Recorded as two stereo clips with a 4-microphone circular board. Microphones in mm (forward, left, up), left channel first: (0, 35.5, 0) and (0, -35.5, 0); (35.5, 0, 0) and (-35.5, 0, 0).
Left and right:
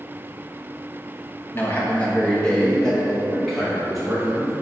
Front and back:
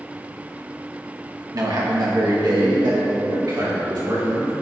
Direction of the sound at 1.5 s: 145° left.